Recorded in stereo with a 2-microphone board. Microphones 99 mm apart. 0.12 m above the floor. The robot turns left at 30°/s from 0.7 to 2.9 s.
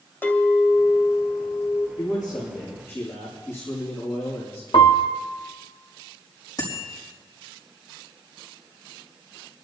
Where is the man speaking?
50° left (ahead or behind), 5.5 m; by 4.6 s 25° left (ahead or behind), 5.5 m.